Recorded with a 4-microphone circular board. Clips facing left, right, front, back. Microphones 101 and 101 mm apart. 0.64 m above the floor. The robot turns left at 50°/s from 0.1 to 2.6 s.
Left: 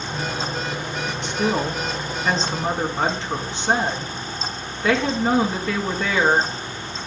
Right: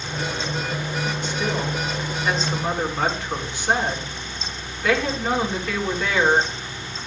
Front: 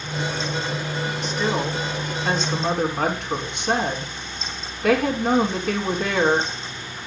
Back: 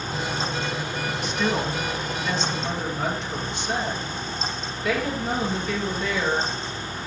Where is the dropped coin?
No dropped coin in this recording.